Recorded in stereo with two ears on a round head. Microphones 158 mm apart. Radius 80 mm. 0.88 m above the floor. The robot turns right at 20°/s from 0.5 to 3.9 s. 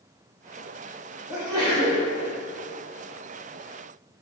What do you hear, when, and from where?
1.3 s a sneeze: 20° right (ahead or behind), 2.5 m; by 2.0 s 35° right (ahead or behind), 2.5 m